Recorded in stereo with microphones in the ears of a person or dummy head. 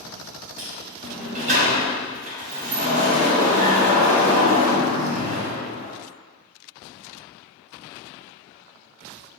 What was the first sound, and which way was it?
A sliding door, 35° right (ahead or behind).